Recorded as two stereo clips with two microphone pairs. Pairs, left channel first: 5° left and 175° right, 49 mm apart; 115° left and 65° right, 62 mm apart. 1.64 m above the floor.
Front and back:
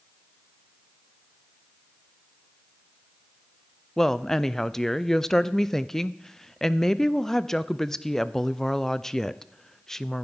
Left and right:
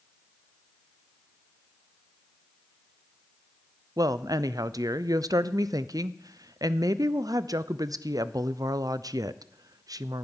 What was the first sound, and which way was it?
A woman speaking, 75° right.